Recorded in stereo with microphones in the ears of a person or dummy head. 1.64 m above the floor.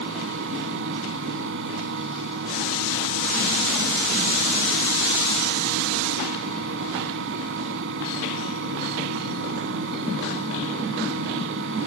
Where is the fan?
65° right (ahead or behind).